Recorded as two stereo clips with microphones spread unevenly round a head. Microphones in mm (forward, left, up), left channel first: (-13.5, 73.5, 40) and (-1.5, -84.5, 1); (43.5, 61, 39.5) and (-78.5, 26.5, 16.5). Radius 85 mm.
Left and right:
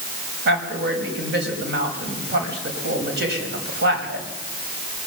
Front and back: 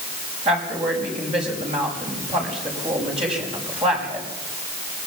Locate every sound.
0.5 s a woman speaking: 105° right, 5.5 m